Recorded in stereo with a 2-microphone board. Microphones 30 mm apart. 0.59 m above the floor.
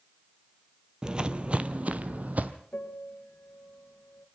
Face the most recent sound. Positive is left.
turn(degrees=75)  # may be behind; listen again after turning